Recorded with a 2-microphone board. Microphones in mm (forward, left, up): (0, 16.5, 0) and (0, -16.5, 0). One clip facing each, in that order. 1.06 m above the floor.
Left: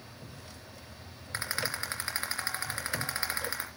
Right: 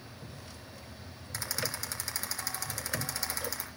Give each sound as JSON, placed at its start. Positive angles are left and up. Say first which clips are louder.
{"t": 1.3, "sound": "a rattle", "louder": "left 3 dB", "side_deg": 35, "distance_m": 3.5}